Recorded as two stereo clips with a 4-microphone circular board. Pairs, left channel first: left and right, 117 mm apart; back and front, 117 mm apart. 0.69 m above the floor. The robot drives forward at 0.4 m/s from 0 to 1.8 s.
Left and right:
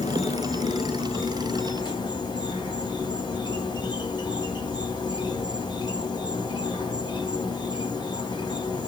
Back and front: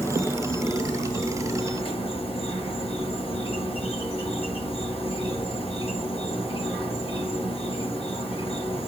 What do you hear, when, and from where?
0.0 s an insect: 110° left, 0.9 m; by 8.9 s 140° left, 1.3 m